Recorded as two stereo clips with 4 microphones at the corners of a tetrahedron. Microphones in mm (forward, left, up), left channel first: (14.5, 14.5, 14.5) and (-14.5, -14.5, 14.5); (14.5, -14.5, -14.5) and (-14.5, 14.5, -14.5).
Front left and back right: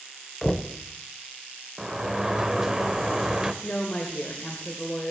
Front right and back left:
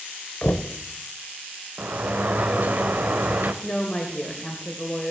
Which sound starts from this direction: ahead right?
Knocking, at 0.4 s.